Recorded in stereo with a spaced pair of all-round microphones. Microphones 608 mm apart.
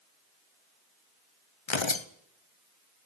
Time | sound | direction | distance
1.7 | tearing paper | 50° left (ahead or behind) | 1.1 m